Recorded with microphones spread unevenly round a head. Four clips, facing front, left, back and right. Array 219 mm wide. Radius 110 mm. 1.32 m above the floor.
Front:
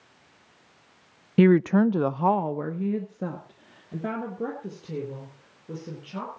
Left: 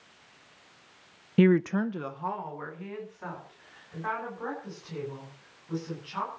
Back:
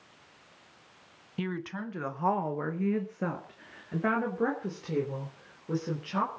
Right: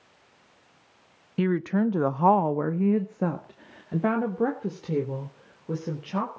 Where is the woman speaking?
30° left, 0.7 m; by 6.4 s 95° right, 5.5 m.